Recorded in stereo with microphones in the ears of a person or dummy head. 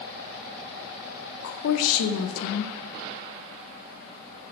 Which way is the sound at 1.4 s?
80° left.